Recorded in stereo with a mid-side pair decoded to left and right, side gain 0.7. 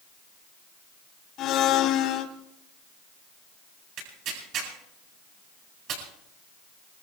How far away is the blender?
About 3 m.